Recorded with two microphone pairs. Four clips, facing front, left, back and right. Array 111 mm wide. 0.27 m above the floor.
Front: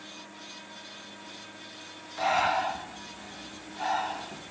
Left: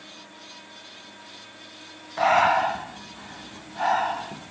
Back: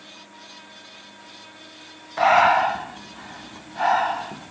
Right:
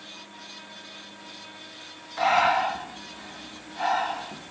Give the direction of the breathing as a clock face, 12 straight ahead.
6 o'clock.